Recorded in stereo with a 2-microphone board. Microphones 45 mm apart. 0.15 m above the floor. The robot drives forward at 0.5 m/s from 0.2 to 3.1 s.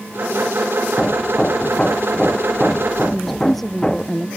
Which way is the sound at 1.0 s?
20° left (ahead or behind).